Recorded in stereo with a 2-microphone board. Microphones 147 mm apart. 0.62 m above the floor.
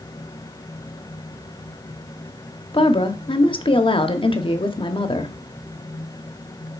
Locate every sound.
2.7 s a woman speaking: 35° left (ahead or behind), 0.8 m